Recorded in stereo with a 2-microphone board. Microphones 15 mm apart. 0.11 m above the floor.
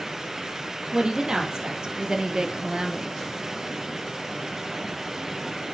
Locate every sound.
0.9 s a woman speaking: 50° right (ahead or behind), 3 m